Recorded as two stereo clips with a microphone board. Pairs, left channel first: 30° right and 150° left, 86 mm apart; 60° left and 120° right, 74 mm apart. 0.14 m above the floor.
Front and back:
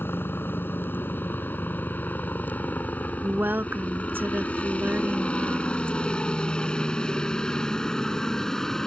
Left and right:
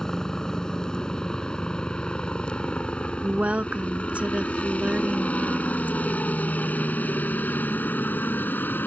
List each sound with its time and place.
0.0 s a helicopter: 10° right; by 8.9 s 50° left
3.2 s a woman speaking: 170° right